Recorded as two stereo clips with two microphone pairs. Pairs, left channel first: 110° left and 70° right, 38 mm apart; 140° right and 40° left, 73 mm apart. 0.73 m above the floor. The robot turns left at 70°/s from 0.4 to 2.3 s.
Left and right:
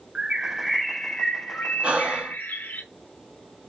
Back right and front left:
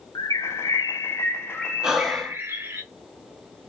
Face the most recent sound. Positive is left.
turn(degrees=-65)